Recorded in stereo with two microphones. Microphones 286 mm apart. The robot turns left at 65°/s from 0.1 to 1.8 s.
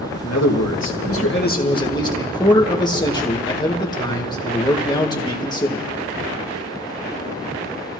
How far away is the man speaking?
About 1.8 m.